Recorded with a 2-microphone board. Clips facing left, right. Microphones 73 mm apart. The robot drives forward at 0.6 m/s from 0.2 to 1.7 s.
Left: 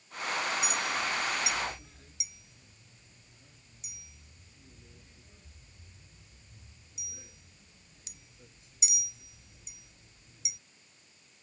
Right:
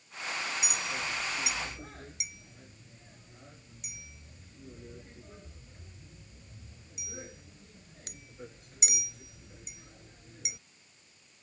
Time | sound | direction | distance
0.6 | a clink | 60° right (ahead or behind) | ?